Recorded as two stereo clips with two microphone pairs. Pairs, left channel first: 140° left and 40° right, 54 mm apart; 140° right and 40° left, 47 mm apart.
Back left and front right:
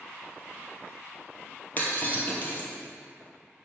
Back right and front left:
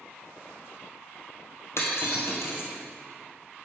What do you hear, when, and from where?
1.8 s breaking glass: 165° right, 1.7 m